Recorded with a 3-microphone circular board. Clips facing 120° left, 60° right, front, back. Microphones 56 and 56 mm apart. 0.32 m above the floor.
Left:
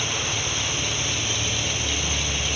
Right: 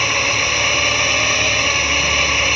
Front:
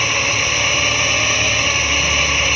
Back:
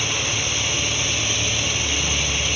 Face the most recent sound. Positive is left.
turn(degrees=-35)